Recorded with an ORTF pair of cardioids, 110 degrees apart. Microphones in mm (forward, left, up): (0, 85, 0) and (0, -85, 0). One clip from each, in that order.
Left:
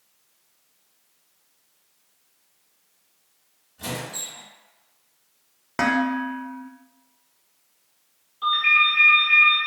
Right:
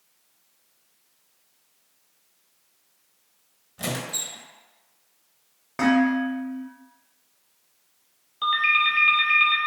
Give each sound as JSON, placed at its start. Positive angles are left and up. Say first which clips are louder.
{"t": 3.8, "sound": "a squeak", "louder": "right 2 dB", "azimuth_deg": -55, "distance_m": 0.6}
{"t": 5.8, "sound": "dishes clattering", "louder": "right 1 dB", "azimuth_deg": 25, "distance_m": 0.5}
{"t": 8.4, "sound": "a ringtone", "louder": "left 2 dB", "azimuth_deg": -55, "distance_m": 0.7}